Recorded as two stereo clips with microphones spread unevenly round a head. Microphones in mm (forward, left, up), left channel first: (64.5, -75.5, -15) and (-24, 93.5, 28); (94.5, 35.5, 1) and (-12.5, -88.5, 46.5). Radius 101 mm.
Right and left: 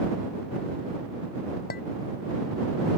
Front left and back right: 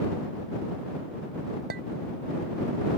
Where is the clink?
110° right.